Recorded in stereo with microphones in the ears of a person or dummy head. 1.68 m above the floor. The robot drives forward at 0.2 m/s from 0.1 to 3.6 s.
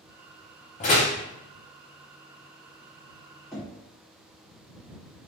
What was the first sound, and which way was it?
A door slam, 25° left (ahead or behind).